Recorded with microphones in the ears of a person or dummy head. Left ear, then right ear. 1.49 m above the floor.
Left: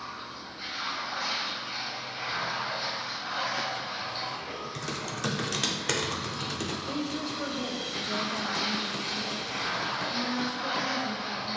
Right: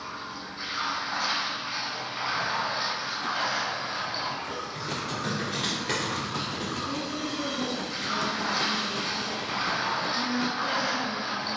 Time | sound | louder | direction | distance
0.0 | running water | right 2 dB | 60° right (ahead or behind) | 1.8 m
4.8 | typing on a keyboard | right 1 dB | 40° left (ahead or behind) | 0.5 m
6.8 | a woman speaking | right 1 dB | 70° left (ahead or behind) | 0.9 m